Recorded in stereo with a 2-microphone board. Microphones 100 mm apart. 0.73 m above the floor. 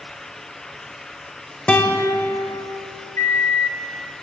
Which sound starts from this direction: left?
A microwave, at 3.2 s.